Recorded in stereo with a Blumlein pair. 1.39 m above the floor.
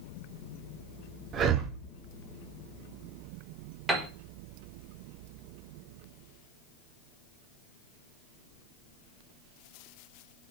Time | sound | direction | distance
1.3 | breathing | 30° right | 0.9 m
3.9 | a piano | 10° right | 1.4 m